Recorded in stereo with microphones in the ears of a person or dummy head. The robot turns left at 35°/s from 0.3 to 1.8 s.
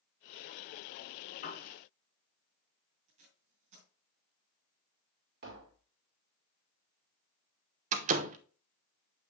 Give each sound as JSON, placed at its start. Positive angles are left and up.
{"t": 1.4, "sound": "a piano", "side_deg": 65, "distance_m": 3.5}
{"t": 3.1, "sound": "tape being pulled", "side_deg": -35, "distance_m": 3.0}
{"t": 5.4, "sound": "tapping", "side_deg": -65, "distance_m": 2.0}
{"t": 7.9, "sound": "a door slam", "side_deg": -40, "distance_m": 0.8}